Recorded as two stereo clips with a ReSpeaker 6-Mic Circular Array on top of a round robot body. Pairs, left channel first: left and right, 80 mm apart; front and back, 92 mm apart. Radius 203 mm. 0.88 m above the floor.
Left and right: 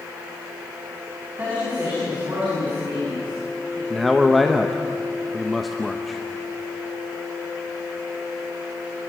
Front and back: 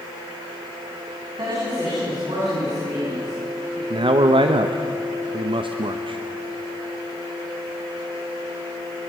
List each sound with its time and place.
1.4 s a woman speaking: 155° right, 8.5 m; by 3.8 s 145° right, 10.5 m
3.9 s a man speaking: straight behind, 1.1 m